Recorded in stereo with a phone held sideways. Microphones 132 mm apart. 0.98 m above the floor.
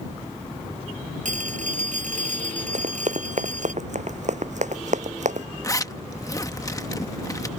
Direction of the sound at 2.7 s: 65° right (ahead or behind).